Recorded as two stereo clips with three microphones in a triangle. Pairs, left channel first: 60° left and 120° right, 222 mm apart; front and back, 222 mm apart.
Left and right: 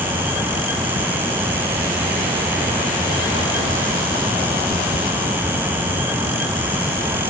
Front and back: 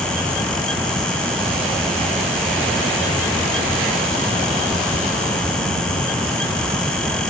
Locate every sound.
Only background noise.